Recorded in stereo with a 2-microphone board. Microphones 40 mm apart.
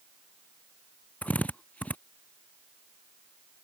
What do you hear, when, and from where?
1.2 s a drill: 35° left (ahead or behind)